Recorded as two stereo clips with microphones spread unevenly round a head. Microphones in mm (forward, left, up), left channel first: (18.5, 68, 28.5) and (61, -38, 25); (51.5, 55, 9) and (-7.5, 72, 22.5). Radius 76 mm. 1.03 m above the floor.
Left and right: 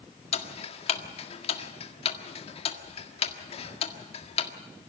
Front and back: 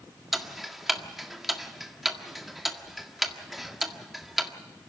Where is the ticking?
80° left, 1.7 m.